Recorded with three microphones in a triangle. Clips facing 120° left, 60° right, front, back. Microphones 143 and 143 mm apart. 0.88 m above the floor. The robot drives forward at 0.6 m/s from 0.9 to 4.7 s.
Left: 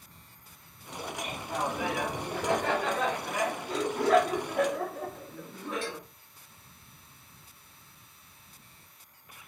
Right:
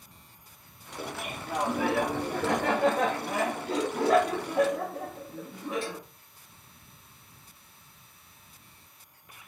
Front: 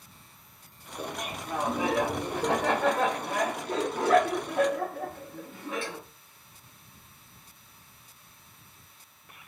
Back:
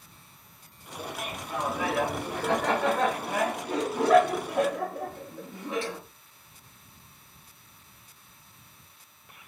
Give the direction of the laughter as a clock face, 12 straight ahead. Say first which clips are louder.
Right 1 dB, front 1 dB; 1 o'clock.